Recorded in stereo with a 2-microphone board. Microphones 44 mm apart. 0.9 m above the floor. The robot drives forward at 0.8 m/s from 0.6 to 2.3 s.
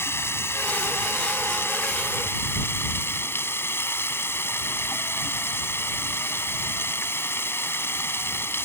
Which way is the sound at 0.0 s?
80° left.